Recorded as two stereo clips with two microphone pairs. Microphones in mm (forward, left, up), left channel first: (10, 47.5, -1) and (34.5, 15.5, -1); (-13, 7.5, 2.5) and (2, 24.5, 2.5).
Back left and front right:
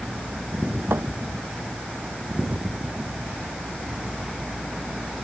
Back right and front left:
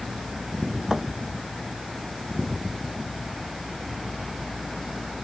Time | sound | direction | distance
0.9 | a thud | 25° right | ?